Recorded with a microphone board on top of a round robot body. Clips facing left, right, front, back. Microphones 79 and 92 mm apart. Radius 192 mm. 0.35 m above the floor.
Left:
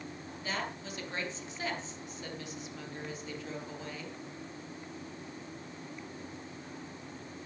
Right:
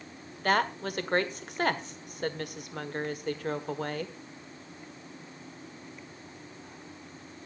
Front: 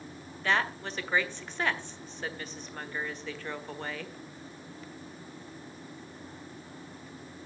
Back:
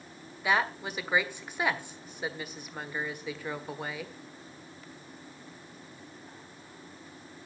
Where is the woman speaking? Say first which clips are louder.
Right 11 dB, back 1 dB; 100° right, 1.7 m.